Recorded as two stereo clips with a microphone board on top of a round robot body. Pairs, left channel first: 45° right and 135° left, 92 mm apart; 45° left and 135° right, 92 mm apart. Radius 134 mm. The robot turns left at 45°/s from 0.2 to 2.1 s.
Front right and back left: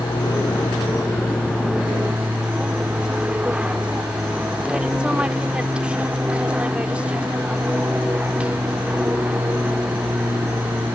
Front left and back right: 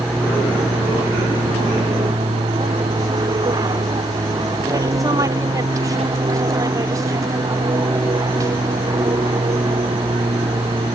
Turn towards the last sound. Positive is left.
turn(degrees=-160)